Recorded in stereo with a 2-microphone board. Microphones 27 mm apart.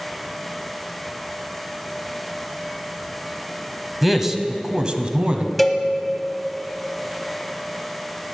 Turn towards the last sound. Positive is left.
turn(degrees=0)  # may be behind; listen again after turning